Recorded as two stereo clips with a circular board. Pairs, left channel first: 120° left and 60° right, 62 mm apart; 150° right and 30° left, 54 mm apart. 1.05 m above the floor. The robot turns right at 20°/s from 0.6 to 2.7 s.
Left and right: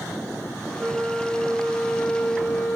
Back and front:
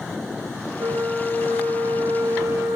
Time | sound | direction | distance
0.8 | a flute | 10° left | 1.0 m